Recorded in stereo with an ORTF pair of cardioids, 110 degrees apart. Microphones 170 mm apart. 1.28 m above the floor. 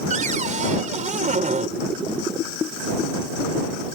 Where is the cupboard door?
45° right.